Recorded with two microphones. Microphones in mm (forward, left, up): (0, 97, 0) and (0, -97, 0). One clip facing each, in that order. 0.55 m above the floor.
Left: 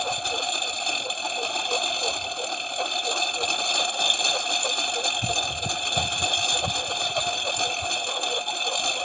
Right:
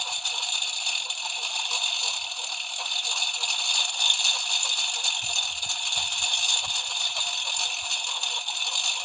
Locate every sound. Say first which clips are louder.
0.0 s a lawn mower: left 12 dB; 60° left (ahead or behind)